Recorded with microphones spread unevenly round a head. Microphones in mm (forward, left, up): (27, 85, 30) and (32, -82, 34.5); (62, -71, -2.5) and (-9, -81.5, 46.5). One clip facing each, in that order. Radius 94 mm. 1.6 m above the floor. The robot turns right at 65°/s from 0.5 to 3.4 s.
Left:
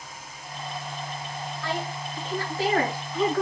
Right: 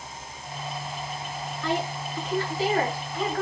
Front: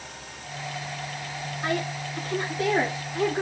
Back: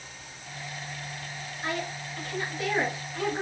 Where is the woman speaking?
15° right, 3.5 m; by 3.4 s 100° left, 3.5 m.